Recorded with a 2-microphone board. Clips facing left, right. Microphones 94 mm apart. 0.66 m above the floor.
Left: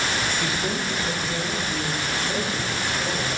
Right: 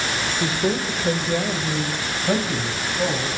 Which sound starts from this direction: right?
A man speaking, at 0.4 s.